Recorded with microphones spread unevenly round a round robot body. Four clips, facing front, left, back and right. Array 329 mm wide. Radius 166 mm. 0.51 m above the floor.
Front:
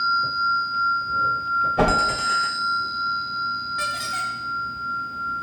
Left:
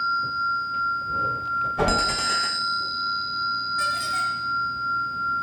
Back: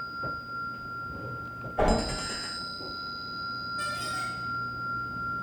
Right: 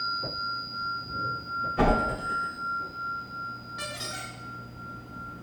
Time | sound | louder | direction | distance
1.8 | a whoosh | right 1 dB, front 4 dB | 10° right | 2.5 m
3.8 | a squeak | left 13 dB, front 4 dB | 5° left | 3.5 m